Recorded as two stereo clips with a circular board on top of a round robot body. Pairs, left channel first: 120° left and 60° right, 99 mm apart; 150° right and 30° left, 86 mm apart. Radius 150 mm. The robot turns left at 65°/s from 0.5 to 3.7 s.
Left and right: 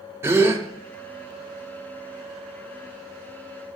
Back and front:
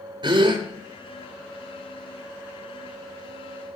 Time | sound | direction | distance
0.2 | a gasp | 5° left | 1.0 m